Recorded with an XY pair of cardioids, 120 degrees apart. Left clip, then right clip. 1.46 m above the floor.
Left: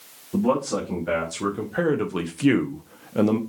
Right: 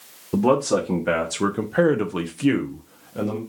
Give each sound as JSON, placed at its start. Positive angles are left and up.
{"t": 0.3, "sound": "a man speaking", "azimuth_deg": -60, "distance_m": 1.1}